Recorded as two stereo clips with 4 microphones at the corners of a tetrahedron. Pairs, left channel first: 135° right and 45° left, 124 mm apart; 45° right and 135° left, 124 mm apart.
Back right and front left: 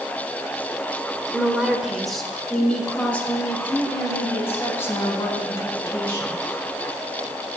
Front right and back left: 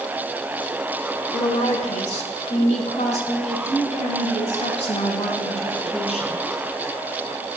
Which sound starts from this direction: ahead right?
A woman speaking, at 1.3 s.